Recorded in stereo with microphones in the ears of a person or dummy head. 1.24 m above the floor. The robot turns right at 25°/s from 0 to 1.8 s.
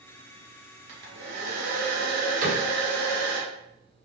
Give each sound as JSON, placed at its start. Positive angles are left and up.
{"t": 0.9, "sound": "a hair dryer", "side_deg": -60, "distance_m": 0.8}
{"t": 2.4, "sound": "a cupboard door", "side_deg": -50, "distance_m": 1.2}